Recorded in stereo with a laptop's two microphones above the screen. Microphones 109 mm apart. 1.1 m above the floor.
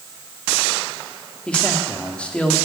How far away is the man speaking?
About 2.5 m.